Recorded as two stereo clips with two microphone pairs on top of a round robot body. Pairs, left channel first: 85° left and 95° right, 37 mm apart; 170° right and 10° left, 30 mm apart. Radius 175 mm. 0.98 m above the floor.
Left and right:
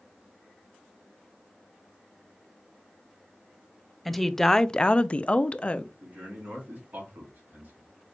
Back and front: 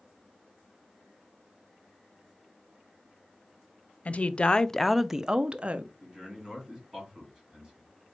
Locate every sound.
4.0 s a woman speaking: 165° left, 0.7 m; by 5.9 s 45° left, 0.8 m
6.0 s a man speaking: 65° right, 3 m